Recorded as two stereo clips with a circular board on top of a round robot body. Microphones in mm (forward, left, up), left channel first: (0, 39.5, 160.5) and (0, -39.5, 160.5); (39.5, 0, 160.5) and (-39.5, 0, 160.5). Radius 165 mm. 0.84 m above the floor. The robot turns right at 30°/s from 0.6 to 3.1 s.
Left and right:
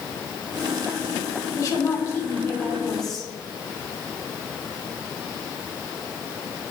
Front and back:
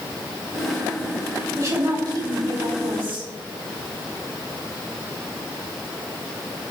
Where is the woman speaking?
130° left, 3 m; by 3.3 s straight behind, 3 m.